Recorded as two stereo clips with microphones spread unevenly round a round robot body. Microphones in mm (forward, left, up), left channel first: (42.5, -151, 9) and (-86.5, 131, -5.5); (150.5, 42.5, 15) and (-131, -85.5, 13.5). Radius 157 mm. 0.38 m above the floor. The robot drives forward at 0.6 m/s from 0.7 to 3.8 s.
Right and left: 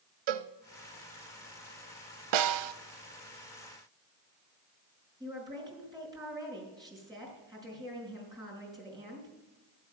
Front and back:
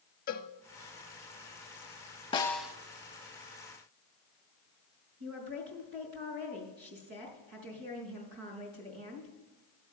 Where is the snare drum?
100° left, 0.6 m; by 2.7 s 120° left, 0.7 m.